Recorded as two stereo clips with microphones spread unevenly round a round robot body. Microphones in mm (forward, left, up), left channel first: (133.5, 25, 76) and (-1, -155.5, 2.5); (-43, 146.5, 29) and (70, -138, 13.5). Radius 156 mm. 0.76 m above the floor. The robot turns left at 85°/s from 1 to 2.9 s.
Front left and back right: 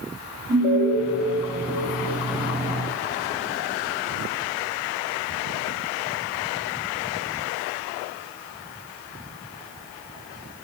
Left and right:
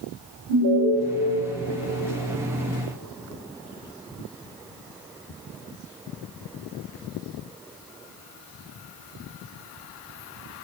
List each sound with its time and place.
0.5 s an alarm: 90° right, 4.5 m